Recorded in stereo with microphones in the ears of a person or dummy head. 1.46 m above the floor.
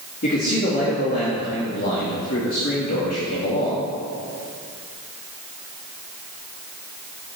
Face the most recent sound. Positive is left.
turn(degrees=50)  # may be behind; listen again after turning